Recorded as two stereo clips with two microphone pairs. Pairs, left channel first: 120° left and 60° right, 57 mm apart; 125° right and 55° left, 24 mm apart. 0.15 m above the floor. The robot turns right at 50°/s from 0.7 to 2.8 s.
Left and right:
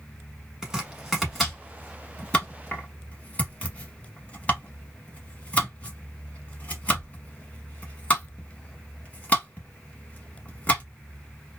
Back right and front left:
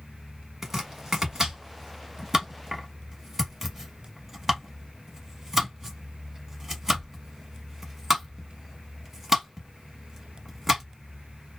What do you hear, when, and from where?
0.6 s chopping: 5° right, 1.1 m; by 10.8 s 100° left, 1.1 m